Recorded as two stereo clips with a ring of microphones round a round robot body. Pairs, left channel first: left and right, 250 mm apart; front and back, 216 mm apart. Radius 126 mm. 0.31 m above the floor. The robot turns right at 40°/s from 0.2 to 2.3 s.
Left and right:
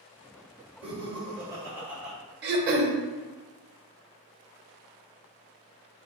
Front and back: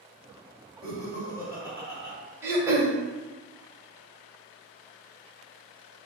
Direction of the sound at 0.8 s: 60° right.